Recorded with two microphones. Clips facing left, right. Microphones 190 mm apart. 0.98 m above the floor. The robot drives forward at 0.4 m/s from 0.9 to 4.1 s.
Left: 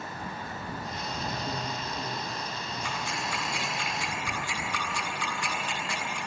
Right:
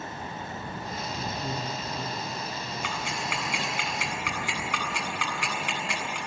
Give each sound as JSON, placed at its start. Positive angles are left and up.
{"t": 1.4, "sound": "a man speaking", "side_deg": -80, "distance_m": 8.5}
{"t": 2.8, "sound": "ticking", "side_deg": -85, "distance_m": 8.5}